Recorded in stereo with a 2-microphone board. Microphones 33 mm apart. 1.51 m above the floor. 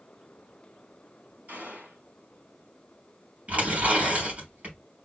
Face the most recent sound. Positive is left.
turn(degrees=-50)  # may be behind; listen again after turning